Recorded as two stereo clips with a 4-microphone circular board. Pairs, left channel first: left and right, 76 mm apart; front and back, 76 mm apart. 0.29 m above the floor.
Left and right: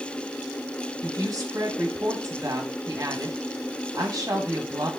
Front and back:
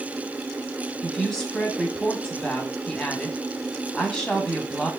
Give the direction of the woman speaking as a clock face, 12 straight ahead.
3 o'clock.